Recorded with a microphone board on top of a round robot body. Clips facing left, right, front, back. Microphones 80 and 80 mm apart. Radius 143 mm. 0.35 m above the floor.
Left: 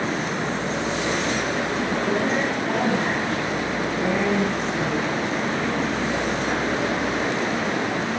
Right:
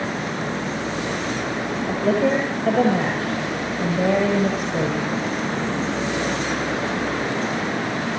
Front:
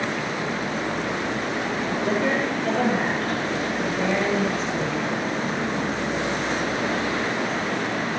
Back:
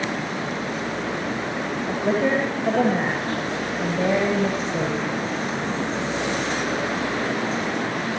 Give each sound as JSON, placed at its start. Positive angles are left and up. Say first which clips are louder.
{"t": 1.9, "sound": "a woman speaking", "louder": "right 6 dB, back 3 dB", "azimuth_deg": -120, "distance_m": 10.0}